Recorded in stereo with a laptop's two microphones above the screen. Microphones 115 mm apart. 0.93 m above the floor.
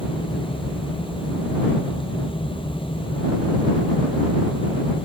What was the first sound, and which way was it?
A fan, 45° left (ahead or behind).